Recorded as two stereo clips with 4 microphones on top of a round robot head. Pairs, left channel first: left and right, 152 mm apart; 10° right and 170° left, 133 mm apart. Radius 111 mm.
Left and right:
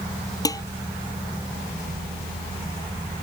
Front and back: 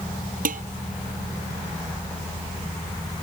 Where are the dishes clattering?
155° left.